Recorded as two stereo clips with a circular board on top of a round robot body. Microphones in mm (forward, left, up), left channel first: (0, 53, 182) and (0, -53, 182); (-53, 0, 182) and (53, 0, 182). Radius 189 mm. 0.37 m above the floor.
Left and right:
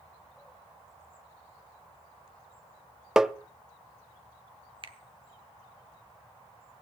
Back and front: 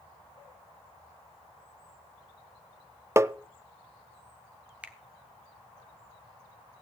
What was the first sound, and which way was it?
Tapping, 10° right.